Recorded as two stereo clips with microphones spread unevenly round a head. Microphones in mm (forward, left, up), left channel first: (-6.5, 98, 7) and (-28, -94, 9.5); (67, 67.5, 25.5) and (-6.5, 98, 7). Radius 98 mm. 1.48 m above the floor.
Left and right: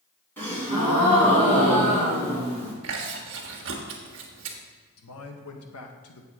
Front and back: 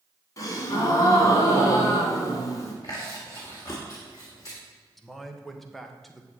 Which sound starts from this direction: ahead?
A gasp, at 0.4 s.